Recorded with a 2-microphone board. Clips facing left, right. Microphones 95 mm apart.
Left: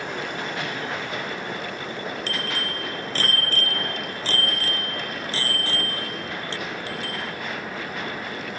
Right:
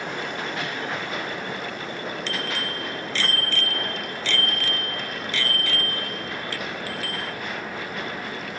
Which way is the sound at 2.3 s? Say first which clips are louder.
Even; 45° left (ahead or behind).